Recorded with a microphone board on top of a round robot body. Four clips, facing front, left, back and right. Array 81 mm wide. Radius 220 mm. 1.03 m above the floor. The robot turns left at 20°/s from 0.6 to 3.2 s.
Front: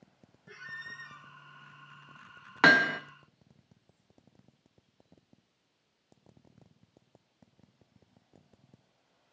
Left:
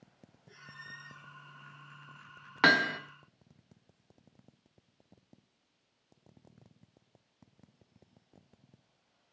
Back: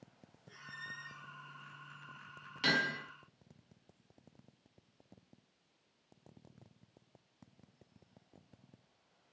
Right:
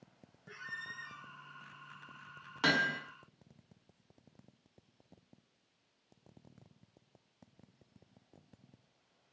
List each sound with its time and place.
0.5 s a squeak: 60° right, 5.5 m; by 1.3 s 75° right, 5.5 m
2.6 s hammering: 30° left, 1.9 m; by 3.0 s 20° left, 1.9 m